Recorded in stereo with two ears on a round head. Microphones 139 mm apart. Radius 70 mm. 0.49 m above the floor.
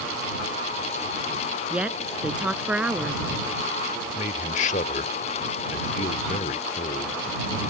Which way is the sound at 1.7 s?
5° right (ahead or behind).